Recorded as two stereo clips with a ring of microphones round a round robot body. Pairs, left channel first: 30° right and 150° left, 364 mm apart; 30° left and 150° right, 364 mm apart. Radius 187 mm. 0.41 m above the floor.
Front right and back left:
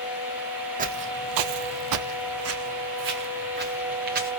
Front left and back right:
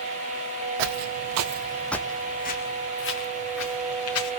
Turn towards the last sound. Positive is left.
turn(degrees=85)